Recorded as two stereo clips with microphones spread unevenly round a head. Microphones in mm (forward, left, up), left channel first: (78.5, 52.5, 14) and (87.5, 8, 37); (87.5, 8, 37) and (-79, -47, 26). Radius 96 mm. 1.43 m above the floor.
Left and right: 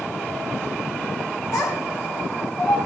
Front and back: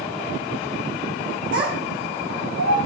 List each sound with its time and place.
1.5 s a child speaking: 160° left, 5.5 m; by 2.8 s 175° left, 6 m